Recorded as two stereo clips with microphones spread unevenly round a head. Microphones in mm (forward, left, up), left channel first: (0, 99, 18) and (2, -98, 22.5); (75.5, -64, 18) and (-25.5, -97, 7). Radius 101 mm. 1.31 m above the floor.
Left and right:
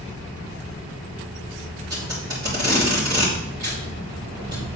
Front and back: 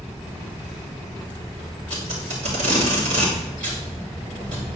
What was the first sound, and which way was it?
Tape being pulled, 160° right.